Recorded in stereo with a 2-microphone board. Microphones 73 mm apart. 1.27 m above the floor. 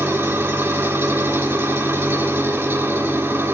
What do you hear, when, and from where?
0.0 s an engine running: 35° right (ahead or behind), 1.6 m